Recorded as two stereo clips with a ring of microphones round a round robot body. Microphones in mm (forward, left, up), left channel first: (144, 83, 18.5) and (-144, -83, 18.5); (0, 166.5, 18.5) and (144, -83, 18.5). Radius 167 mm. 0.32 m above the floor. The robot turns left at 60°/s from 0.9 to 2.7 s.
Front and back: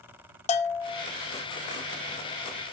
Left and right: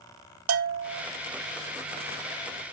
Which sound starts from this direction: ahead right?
A bell, at 0.5 s.